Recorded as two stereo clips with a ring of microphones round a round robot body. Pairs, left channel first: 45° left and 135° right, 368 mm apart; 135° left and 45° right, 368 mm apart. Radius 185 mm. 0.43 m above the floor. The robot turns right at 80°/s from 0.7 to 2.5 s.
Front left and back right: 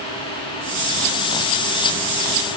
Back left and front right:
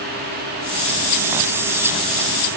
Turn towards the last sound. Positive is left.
No sound to turn to.